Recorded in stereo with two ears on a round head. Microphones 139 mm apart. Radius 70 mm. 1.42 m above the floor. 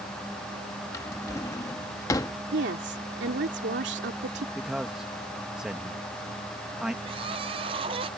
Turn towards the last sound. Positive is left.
turn(degrees=-35)  # may be behind; listen again after turning